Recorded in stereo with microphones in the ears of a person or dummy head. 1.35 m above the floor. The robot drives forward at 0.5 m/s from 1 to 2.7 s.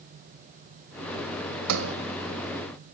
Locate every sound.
1.7 s a sliding door: 85° right, 1.6 m; by 1.9 s 80° right, 1.7 m